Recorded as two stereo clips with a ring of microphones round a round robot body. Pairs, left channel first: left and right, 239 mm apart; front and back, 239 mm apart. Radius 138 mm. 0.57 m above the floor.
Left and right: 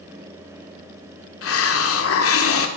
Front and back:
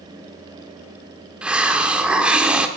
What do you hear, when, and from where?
1.4 s a hiss: 95° left, 1.6 m